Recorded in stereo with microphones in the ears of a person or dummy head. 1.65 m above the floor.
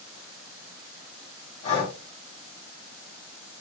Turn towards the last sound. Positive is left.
turn(degrees=30)  # may be behind; listen again after turning